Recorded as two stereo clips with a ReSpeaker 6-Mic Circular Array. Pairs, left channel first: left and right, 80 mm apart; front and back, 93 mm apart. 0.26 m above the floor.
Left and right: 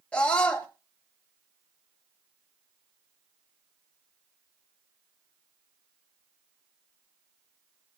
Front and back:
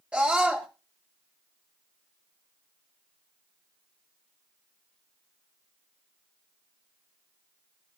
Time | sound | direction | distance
0.1 | a scream | 135° left | 1.1 m